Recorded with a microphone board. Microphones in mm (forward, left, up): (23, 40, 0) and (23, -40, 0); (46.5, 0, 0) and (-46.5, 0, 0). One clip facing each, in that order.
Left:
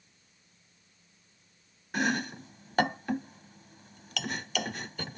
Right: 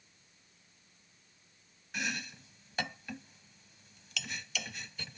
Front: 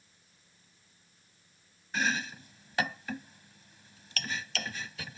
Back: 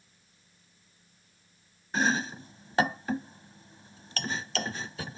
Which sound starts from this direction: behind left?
Chopping, at 1.9 s.